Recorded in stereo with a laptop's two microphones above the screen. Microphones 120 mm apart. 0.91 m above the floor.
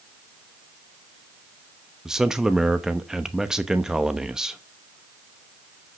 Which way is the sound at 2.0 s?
5° right (ahead or behind).